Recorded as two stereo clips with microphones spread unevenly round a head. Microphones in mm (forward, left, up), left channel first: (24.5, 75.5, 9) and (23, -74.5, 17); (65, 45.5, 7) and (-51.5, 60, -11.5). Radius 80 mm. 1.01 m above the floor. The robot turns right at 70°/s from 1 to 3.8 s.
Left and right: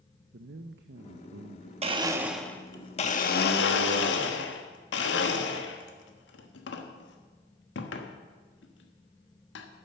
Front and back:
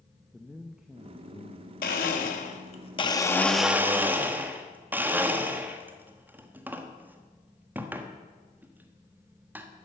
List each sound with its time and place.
0.3 s a man speaking: 100° right, 0.7 m; by 1.7 s 50° right, 0.7 m
1.8 s a blender: 40° right, 1.3 m; by 9.7 s 100° left, 1.3 m